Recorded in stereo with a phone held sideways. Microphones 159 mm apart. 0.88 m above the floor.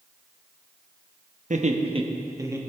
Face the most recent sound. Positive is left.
turn(degrees=-15)  # may be behind; listen again after turning